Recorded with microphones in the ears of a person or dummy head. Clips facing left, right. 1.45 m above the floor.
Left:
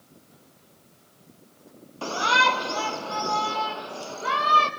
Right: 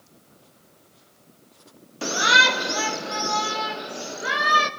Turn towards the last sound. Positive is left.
turn(degrees=-15)  # may be behind; listen again after turning